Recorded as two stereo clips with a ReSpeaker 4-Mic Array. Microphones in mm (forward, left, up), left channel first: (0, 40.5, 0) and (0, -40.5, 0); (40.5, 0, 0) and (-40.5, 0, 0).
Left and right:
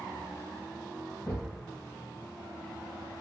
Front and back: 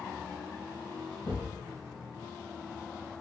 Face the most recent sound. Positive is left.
turn(degrees=20)